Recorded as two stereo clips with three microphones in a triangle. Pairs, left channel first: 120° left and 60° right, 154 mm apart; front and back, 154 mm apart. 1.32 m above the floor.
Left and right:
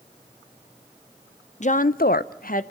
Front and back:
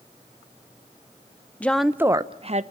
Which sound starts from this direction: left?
A woman speaking, at 1.6 s.